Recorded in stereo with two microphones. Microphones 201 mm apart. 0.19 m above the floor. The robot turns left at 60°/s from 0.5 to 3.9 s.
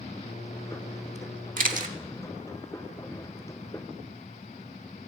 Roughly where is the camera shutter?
Right.